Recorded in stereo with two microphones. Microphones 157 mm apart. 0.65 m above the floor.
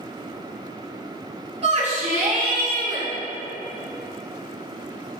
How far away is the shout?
About 1.9 m.